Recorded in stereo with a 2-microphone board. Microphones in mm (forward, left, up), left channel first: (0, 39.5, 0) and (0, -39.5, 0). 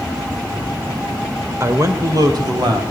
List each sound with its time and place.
1.6 s a man speaking: 40° right (ahead or behind), 1.6 m; by 2.8 s 65° right (ahead or behind), 2.5 m